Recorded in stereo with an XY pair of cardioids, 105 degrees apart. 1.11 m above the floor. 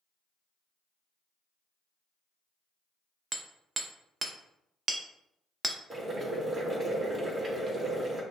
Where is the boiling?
35° right, 1.4 m.